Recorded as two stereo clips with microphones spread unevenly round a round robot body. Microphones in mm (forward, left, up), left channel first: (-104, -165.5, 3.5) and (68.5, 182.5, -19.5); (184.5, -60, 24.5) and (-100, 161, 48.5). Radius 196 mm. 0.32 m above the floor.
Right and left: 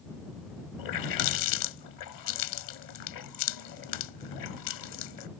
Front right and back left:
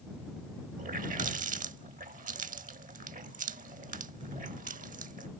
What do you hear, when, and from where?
0.8 s a running tap: 150° right